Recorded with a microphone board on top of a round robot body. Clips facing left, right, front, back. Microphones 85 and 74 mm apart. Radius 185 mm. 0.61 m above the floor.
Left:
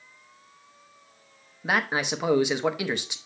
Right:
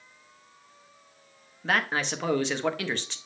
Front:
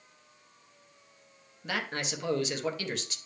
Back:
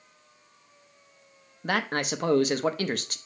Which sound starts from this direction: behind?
A man speaking, at 1.6 s.